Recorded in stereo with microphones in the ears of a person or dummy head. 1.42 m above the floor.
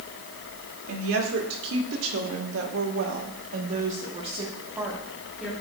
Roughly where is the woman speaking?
Right.